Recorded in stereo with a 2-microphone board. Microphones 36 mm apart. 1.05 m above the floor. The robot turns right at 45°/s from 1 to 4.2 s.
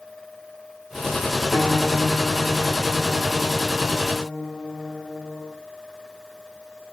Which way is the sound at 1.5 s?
50° left.